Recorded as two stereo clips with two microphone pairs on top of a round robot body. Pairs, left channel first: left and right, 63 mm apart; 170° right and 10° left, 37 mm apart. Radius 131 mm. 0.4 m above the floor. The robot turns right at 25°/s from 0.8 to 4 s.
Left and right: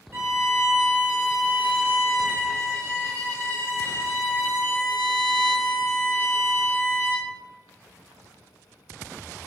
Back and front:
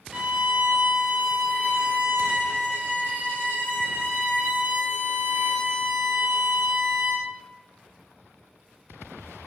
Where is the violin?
35° right, 2.0 m; by 7.3 s 45° left, 2.0 m.